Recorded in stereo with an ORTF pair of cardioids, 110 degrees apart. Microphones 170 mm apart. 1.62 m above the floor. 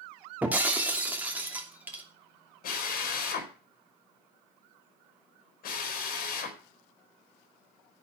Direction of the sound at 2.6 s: 60° left.